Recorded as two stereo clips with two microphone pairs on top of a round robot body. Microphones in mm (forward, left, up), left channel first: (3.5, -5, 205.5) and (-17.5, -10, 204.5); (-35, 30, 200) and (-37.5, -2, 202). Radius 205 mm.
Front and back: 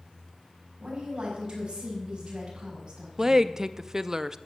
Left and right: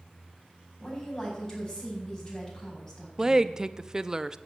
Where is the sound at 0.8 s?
150° left, 5.5 m.